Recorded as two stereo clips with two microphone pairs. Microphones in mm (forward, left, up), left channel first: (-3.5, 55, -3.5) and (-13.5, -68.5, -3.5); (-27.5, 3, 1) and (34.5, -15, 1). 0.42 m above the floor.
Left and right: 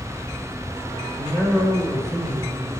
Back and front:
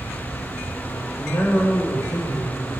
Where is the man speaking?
165° right, 1.7 m; by 2.7 s 160° right, 2.5 m.